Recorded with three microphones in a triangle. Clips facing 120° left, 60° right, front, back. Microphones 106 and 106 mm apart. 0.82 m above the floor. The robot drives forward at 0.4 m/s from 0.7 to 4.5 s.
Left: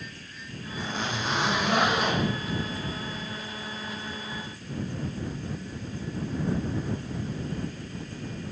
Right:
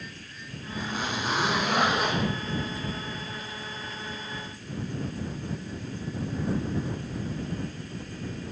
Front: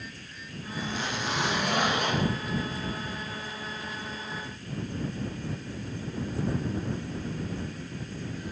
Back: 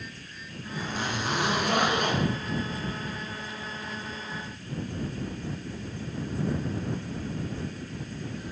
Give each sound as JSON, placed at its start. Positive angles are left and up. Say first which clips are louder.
{"t": 0.8, "sound": "a zipper", "louder": "even, back 1 dB", "azimuth_deg": -140, "distance_m": 1.5}